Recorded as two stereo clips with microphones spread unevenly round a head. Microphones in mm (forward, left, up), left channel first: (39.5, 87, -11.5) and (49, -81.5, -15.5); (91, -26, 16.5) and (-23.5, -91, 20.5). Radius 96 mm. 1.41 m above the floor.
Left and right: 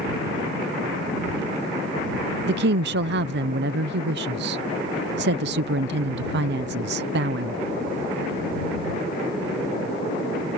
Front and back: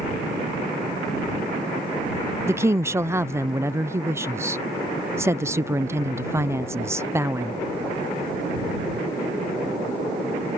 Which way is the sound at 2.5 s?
80° right.